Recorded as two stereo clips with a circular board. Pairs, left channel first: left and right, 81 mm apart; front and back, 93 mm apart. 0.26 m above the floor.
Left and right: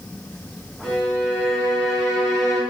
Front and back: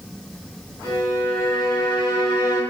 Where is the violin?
155° right, 1.8 m.